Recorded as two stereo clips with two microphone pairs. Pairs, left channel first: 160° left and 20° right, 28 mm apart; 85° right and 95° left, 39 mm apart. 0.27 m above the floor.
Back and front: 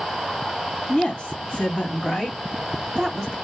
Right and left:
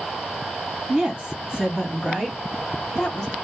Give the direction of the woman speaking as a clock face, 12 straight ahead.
7 o'clock.